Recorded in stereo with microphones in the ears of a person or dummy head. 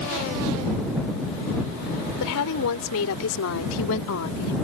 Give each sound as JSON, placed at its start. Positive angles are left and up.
{"t": 2.2, "sound": "a woman speaking", "side_deg": 75}